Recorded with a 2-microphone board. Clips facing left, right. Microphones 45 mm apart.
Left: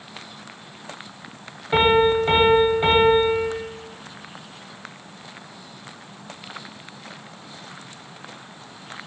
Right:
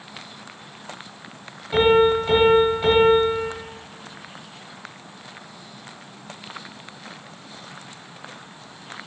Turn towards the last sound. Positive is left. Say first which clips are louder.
# right 1 dB
turn(degrees=35)  # may be behind; listen again after turning